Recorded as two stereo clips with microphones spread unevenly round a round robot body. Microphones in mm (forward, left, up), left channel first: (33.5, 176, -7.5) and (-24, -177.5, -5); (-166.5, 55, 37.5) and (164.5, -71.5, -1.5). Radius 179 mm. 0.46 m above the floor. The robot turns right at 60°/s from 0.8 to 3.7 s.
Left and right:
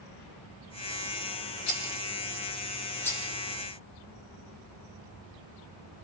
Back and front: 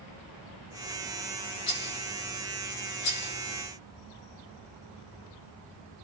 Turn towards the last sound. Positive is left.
turn(degrees=-155)